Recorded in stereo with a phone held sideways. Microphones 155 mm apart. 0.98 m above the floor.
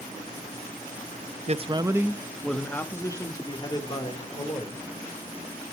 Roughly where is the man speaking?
Right.